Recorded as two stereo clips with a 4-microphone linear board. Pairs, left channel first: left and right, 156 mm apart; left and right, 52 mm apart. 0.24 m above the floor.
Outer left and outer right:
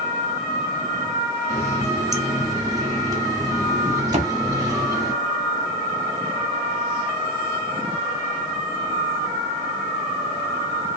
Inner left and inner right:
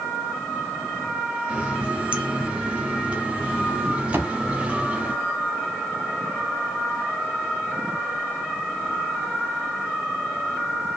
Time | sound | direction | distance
1.5 | a running tap | 25° right (ahead or behind) | 0.7 m
4.1 | a thud | 45° right (ahead or behind) | 0.6 m